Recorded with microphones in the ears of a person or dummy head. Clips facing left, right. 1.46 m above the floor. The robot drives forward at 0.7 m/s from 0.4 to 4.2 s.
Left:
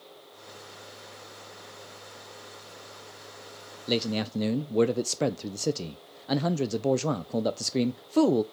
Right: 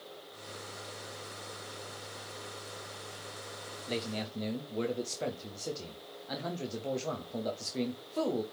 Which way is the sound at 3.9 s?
60° left (ahead or behind).